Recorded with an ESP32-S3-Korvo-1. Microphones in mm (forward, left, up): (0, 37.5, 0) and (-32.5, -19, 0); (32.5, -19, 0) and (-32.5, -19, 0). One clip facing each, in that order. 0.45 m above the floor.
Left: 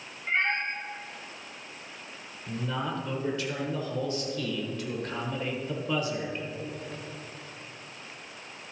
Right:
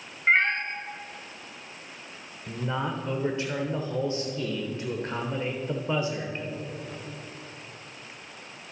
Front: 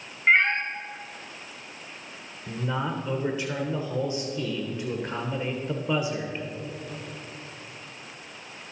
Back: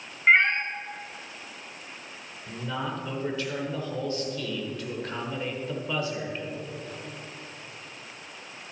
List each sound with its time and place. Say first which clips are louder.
0.3 s a cat meowing: right 5 dB, back 1 dB; 95° right, 1.3 m
2.5 s a man speaking: right 2 dB, front 3 dB; 65° right, 1.1 m